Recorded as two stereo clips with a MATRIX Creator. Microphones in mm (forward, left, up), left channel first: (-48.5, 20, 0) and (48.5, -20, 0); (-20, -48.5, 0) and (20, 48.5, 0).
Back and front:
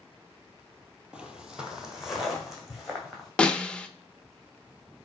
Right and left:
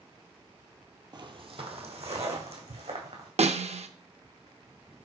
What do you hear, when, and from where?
1.1 s footsteps: 55° left, 0.8 m; by 3.3 s 65° left, 2.5 m
3.4 s a snare drum: 75° left, 0.5 m